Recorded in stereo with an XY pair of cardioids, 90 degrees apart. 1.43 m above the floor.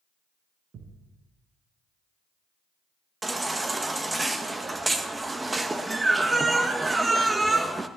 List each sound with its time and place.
0.7 s a thud: 65° right, 5 m
3.2 s a baby crying: 20° right, 1.5 m